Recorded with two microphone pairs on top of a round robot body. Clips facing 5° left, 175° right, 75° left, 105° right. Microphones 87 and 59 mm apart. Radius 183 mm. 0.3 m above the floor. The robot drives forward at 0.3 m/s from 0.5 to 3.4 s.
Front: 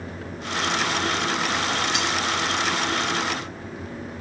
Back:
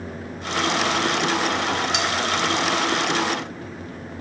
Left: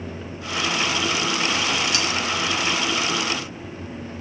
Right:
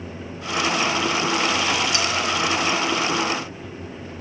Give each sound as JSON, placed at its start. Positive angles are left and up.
{"t": 1.9, "sound": "cutlery clinking", "azimuth_deg": -170, "distance_m": 1.7}